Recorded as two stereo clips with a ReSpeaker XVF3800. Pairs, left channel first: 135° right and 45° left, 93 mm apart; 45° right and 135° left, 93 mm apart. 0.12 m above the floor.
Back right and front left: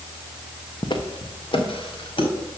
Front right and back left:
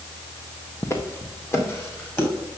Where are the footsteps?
100° right, 1.2 m; by 2.3 s 110° right, 3.5 m.